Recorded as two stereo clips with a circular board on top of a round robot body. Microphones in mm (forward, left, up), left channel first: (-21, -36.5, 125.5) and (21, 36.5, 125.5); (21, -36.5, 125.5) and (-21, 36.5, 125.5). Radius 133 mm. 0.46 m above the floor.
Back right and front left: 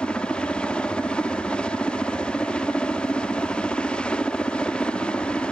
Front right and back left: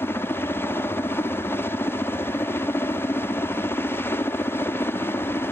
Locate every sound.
0.0 s a helicopter: 55° right